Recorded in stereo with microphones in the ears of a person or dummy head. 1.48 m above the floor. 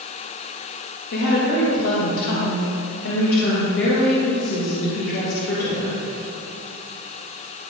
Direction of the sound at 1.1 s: 60° left (ahead or behind).